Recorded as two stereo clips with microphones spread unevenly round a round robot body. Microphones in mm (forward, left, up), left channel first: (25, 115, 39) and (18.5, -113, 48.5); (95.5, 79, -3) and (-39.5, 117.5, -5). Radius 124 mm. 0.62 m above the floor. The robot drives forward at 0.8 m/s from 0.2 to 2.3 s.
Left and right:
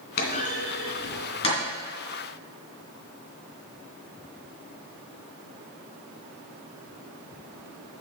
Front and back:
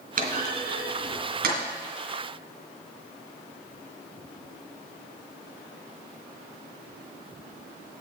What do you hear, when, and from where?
0.2 s a clunk: 145° left, 2.5 m; by 1.6 s 155° left, 3.5 m